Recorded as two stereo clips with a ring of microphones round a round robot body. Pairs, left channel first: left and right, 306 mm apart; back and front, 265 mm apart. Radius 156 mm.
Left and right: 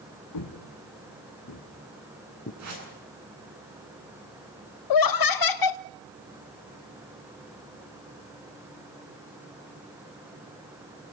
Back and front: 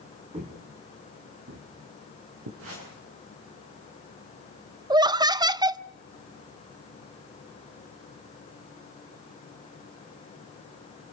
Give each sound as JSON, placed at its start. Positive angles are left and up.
{"t": 0.3, "sound": "footsteps", "azimuth_deg": 70, "distance_m": 3.0}
{"t": 2.6, "sound": "a whoosh", "azimuth_deg": -50, "distance_m": 9.0}
{"t": 4.9, "sound": "laughter", "azimuth_deg": 75, "distance_m": 0.5}